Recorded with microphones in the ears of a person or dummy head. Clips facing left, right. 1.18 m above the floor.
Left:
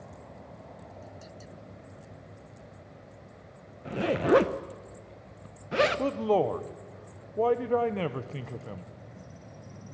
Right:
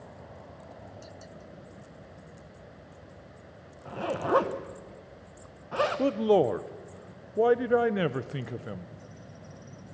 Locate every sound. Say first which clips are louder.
3.9 s a zipper: left 5 dB; 25° left (ahead or behind), 0.8 m
6.0 s a man speaking: right 3 dB; 15° right (ahead or behind), 0.8 m